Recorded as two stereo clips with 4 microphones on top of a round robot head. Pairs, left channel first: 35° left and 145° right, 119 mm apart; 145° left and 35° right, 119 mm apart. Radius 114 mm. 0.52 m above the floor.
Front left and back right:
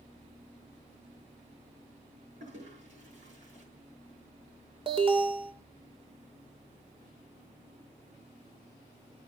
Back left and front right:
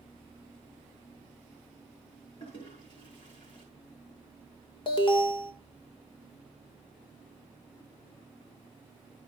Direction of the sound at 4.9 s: Straight behind.